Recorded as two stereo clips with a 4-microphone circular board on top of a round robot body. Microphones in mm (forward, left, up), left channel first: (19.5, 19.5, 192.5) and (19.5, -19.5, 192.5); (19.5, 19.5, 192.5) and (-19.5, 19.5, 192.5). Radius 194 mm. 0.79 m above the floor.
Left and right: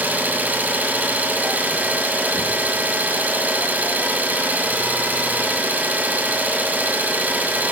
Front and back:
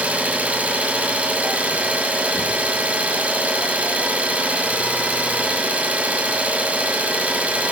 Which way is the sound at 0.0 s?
125° right.